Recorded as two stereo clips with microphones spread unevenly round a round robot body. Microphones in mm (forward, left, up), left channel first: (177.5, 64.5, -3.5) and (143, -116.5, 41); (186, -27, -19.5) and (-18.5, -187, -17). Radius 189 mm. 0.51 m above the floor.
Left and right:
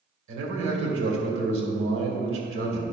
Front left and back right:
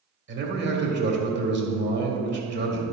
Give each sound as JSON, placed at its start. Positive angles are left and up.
{"t": 0.3, "sound": "a man speaking", "azimuth_deg": -95, "distance_m": 2.0}